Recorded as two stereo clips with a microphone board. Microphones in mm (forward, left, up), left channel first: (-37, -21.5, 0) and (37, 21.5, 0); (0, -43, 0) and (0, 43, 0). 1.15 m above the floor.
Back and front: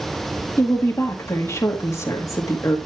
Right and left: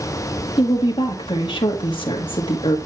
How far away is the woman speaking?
About 1.8 m.